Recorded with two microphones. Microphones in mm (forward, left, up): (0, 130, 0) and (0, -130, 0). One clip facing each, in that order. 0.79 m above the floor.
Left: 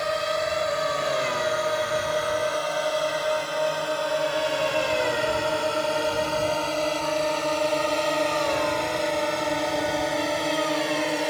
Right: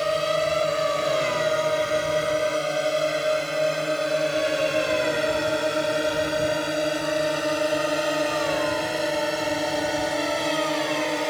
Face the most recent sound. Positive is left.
turn(degrees=5)  # may be behind; listen again after turning